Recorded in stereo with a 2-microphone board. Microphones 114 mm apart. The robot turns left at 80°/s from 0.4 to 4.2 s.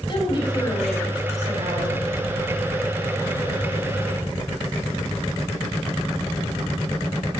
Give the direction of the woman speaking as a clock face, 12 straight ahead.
10 o'clock.